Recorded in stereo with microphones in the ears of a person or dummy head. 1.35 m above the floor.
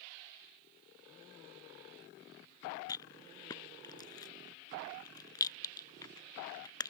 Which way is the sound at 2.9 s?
20° left (ahead or behind).